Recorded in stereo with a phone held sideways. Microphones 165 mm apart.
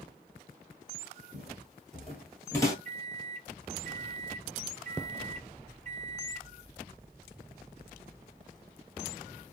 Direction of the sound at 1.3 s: 5° right (ahead or behind).